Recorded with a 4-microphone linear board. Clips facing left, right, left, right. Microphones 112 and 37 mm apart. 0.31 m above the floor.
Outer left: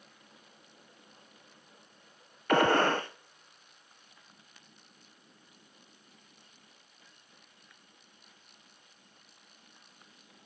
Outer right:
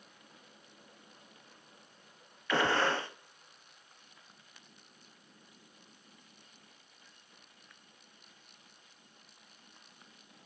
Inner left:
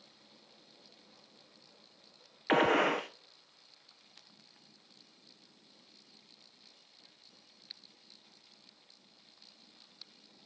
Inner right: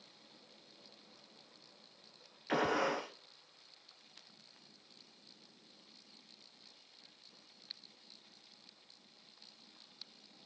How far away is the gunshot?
About 1.3 m.